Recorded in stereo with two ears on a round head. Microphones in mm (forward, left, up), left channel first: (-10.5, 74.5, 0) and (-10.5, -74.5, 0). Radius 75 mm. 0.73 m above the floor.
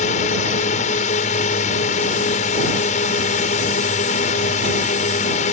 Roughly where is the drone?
Left.